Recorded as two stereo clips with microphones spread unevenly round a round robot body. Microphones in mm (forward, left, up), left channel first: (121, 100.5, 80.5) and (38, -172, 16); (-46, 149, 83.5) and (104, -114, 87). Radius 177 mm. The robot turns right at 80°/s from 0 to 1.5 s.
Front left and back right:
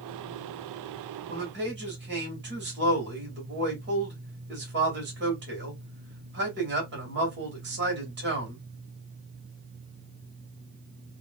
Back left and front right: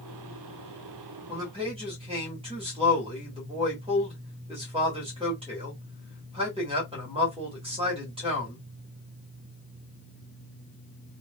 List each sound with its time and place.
1.3 s a man speaking: 145° right, 2 m; by 8.6 s 130° right, 2 m